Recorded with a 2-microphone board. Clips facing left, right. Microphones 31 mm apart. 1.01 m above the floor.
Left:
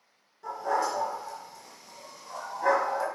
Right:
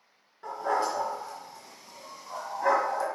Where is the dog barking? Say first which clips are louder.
Even; 35° right (ahead or behind), 3 m; by 3.1 s 10° left (ahead or behind), 1.3 m.